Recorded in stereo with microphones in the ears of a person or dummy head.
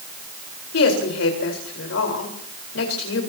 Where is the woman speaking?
85° left, 4.5 m.